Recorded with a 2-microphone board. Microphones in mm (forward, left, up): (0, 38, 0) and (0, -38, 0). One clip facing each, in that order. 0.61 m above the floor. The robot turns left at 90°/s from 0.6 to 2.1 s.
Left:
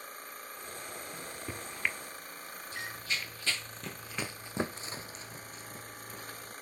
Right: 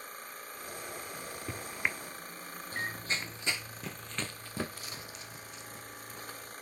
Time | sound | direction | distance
1.1 | a microwave | 25° left (ahead or behind) | 0.9 m
2.7 | running footsteps | 45° right (ahead or behind) | 0.8 m